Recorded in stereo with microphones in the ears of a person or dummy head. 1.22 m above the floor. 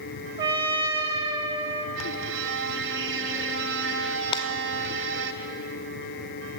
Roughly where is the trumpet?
Right.